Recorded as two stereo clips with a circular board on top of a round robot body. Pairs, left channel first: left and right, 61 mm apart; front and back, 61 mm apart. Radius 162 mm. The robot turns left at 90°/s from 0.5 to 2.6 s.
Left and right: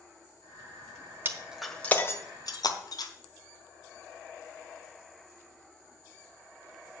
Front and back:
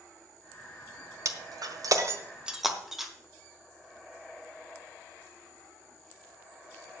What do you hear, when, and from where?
1.2 s breaking glass: 145° right, 1.3 m; by 3.1 s 95° left, 1.3 m